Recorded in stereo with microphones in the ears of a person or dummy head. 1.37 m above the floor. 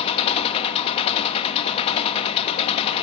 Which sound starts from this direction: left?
An engine running, at 0.0 s.